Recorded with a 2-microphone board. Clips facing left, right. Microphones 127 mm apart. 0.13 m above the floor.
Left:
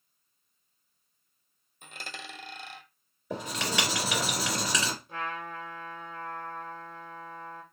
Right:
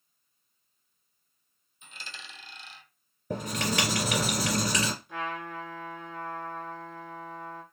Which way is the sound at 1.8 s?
60° left (ahead or behind).